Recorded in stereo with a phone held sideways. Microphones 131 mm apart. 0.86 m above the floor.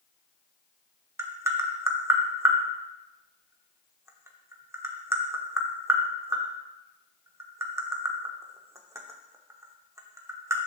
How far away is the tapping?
About 0.8 m.